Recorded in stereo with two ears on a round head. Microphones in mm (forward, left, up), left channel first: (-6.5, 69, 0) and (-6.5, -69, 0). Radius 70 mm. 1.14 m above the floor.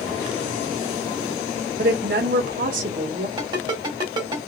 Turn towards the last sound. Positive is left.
turn(degrees=-25)  # may be behind; listen again after turning